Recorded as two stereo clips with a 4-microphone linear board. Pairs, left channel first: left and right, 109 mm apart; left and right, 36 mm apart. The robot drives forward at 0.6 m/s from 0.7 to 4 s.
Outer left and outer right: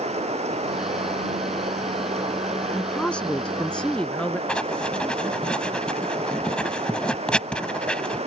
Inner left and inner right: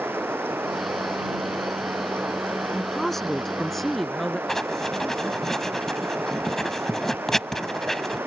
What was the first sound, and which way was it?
Running water, 80° right.